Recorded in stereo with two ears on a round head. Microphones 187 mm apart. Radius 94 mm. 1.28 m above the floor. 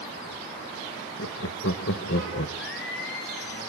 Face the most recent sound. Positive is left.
turn(degrees=60)  # may be behind; listen again after turning